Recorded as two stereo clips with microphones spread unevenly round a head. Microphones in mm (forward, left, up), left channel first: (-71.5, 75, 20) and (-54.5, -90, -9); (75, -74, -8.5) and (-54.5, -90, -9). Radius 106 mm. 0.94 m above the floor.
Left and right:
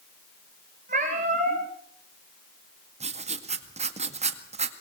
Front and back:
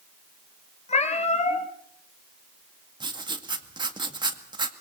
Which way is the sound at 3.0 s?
120° right.